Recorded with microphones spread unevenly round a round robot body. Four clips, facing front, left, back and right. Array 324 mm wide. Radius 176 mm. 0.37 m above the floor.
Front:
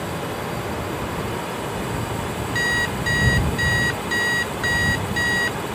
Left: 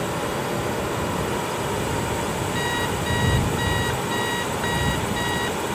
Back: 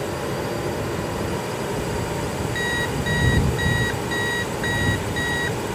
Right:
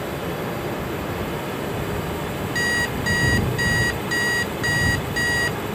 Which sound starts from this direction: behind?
A drone, at 0.0 s.